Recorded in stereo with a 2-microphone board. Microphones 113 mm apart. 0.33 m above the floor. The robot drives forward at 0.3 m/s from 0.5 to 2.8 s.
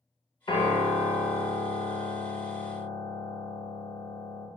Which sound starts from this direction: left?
A piano, at 0.5 s.